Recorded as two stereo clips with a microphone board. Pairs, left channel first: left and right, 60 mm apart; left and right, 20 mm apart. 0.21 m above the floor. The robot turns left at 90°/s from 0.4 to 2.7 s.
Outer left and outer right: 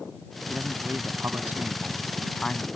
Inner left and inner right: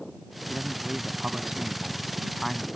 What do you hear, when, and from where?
0.5 s a man speaking: 35° right; by 2.7 s 130° left